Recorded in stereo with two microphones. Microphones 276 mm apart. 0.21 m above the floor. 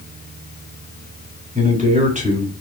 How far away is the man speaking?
About 2.5 m.